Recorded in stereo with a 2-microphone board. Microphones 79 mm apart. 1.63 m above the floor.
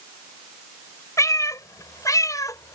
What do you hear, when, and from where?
1.2 s a cat meowing: 45° left (ahead or behind); by 2.8 s 50° left (ahead or behind)